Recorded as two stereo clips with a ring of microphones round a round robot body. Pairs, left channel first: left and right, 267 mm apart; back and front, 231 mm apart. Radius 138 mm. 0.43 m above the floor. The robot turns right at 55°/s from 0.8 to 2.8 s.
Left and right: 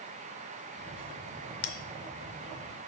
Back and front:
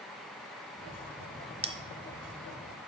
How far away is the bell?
About 0.7 m.